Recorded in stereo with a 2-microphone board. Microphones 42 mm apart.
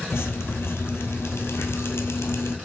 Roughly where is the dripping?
Left.